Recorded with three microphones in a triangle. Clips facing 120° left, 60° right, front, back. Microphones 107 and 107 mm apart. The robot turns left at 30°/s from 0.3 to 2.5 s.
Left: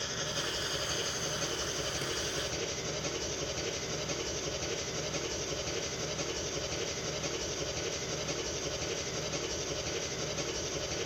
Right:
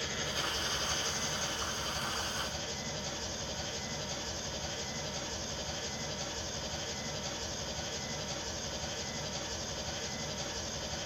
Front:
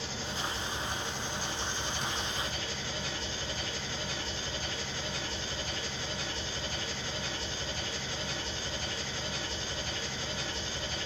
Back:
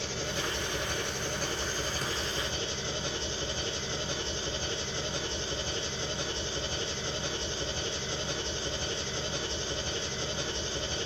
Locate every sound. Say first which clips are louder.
0.0 s an engine running: even, back 3 dB; 175° right, 4.5 m; by 11.1 s 115° left, 4.5 m